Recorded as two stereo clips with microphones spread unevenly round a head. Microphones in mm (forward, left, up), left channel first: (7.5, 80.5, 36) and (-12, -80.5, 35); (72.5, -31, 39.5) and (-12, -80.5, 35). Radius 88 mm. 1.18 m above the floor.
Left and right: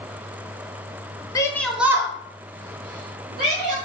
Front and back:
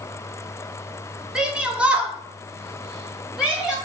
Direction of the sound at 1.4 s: 140° left.